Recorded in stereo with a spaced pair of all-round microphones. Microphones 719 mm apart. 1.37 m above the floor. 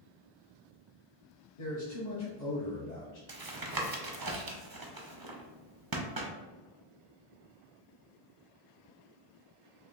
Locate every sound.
1.6 s a man speaking: 70° left (ahead or behind), 1.1 m
3.3 s tapping: 35° right (ahead or behind), 0.5 m